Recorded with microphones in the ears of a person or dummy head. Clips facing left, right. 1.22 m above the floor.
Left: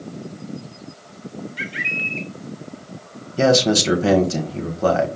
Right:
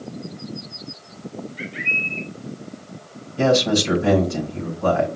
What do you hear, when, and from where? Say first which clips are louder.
1.6 s a bird: even; 65° left (ahead or behind), 0.7 m
3.4 s a man speaking: left 2 dB; 55° left (ahead or behind), 1.4 m